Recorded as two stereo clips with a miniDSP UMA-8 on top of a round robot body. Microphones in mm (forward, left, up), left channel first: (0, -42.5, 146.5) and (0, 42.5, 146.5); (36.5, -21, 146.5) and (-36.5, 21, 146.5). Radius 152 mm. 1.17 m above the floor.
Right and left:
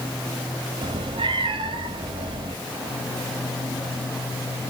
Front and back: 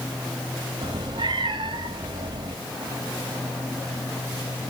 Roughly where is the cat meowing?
Behind left.